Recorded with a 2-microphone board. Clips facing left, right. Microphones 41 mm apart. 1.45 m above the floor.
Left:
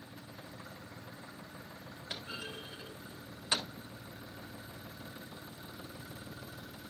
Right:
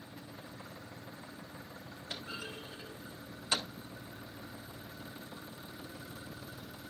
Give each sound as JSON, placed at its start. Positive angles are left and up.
{"t": 2.1, "sound": "a clunk", "side_deg": 25, "distance_m": 3.0}